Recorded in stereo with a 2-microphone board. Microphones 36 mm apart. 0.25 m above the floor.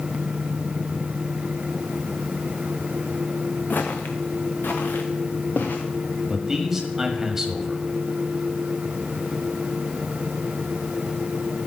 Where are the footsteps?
65° left (ahead or behind), 1.1 m; by 5.8 s 70° left (ahead or behind), 1.9 m.